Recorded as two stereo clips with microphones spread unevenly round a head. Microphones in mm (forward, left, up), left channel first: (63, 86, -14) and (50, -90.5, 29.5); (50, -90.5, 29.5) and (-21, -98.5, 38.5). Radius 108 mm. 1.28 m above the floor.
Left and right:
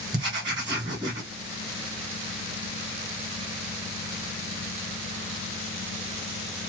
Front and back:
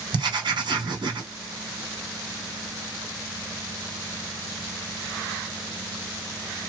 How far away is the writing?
About 1.2 m.